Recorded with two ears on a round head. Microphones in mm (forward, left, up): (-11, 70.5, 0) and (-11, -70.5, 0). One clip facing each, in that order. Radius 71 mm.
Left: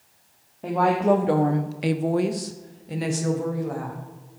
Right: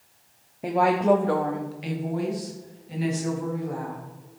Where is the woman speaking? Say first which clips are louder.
Even; 15° right (ahead or behind), 1.2 m; by 4.0 s 55° left (ahead or behind), 3 m.